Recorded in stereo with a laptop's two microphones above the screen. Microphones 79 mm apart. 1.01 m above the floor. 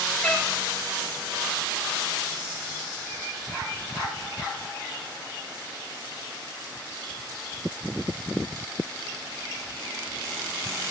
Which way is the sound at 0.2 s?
15° left (ahead or behind).